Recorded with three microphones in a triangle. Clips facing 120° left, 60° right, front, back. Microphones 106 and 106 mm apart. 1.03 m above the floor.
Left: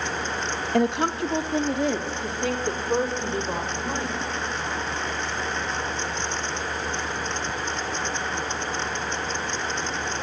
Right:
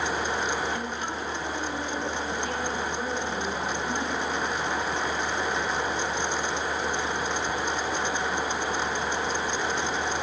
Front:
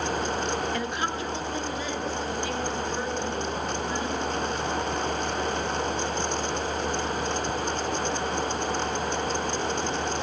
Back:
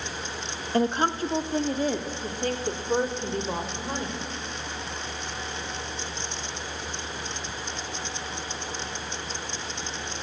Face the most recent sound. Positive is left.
turn(degrees=140)